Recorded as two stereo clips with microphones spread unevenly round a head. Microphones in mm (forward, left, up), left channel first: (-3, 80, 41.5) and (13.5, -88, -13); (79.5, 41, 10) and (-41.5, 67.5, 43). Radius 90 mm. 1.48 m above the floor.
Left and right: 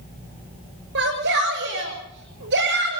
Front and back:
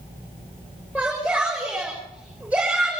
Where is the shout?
110° right, 6 m.